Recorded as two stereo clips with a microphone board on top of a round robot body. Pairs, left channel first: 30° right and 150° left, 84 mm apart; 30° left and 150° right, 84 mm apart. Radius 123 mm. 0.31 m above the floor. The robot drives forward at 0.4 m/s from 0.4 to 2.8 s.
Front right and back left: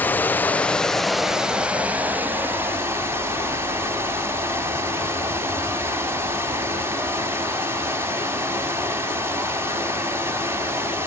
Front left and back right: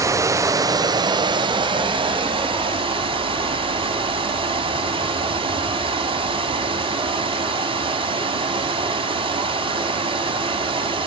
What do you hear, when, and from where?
0.0 s running water: 100° right, 0.7 m; by 11.1 s 145° right, 1.3 m